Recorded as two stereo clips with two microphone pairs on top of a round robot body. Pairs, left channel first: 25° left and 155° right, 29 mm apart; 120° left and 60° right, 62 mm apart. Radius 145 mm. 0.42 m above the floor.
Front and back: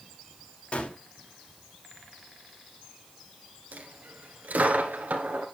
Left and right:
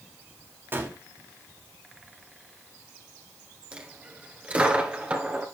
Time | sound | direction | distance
0.7 | a gunshot | 10° right | 2.5 m
3.7 | a dropped coin | 130° right | 1.7 m